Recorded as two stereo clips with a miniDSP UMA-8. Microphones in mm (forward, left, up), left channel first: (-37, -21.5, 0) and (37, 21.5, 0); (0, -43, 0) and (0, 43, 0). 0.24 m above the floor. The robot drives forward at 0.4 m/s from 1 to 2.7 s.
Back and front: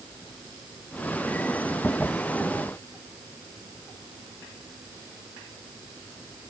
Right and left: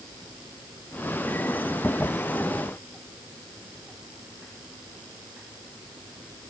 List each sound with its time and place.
Only background noise.